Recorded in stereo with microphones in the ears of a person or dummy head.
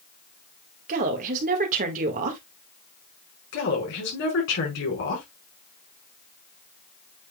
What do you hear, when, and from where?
0.9 s a woman speaking: 45° right (ahead or behind), 1.8 m
3.5 s a woman speaking: 65° left (ahead or behind), 4.5 m